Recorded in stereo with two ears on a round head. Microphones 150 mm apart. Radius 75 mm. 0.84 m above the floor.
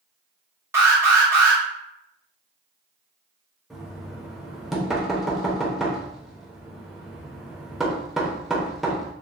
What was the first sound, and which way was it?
An alarm, 15° right (ahead or behind).